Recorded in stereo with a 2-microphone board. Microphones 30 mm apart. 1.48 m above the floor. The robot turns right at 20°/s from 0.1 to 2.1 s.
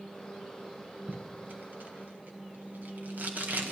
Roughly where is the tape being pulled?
Right.